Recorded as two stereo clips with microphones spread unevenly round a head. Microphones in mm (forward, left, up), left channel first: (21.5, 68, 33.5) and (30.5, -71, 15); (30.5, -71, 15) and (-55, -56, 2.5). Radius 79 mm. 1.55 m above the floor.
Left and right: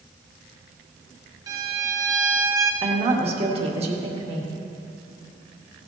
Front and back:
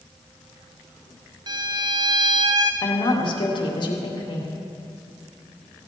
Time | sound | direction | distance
1.5 | a violin | 150° right | 0.9 m
2.8 | a woman speaking | 40° right | 2 m